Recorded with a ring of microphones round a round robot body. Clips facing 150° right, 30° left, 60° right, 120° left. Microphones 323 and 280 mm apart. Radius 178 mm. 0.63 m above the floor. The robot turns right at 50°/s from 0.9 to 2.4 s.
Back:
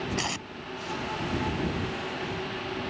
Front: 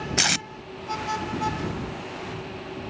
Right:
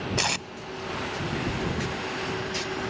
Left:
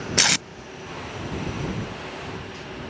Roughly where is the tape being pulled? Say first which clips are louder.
Front 3 dB, left 3 dB; left.